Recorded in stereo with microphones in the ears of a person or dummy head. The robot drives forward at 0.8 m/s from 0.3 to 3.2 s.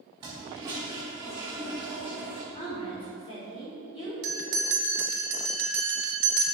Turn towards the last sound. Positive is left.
turn(degrees=-60)  # may be behind; listen again after turning